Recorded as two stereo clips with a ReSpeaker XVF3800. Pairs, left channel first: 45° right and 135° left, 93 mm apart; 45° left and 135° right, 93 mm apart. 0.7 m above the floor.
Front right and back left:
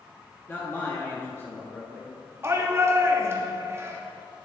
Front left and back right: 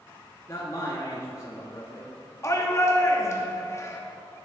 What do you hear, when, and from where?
0.5 s a man speaking: 10° left, 1.4 m
2.4 s a shout: 90° left, 1.4 m